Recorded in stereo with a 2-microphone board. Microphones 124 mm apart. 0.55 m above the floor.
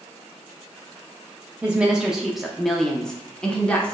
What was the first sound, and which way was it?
A woman speaking, 10° right (ahead or behind).